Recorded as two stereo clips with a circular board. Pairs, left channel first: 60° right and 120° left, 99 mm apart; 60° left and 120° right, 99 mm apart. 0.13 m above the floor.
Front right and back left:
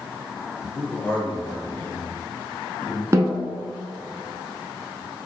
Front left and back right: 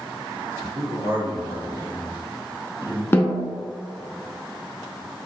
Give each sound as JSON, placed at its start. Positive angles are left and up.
{"t": 0.8, "sound": "a man speaking", "azimuth_deg": -130, "distance_m": 1.4}
{"t": 3.1, "sound": "a snare drum", "azimuth_deg": 100, "distance_m": 0.7}